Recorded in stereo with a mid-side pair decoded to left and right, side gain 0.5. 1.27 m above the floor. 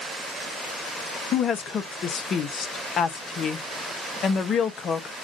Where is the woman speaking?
50° left, 1.0 m.